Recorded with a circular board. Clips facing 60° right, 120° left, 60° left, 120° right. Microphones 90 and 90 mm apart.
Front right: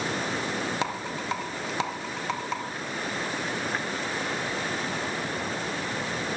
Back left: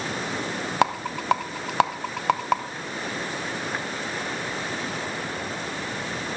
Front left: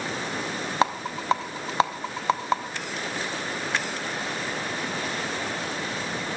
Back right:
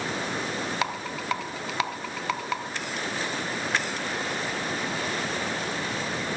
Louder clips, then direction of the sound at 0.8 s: Back left 7 dB, front left 5 dB; 115° left.